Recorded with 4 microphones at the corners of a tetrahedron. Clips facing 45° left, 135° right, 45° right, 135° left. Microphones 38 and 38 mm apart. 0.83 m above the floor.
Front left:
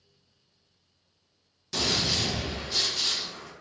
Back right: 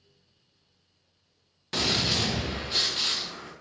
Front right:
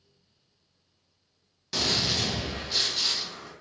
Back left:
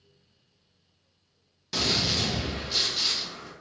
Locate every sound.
1.7 s a gunshot: 145° right, 0.7 m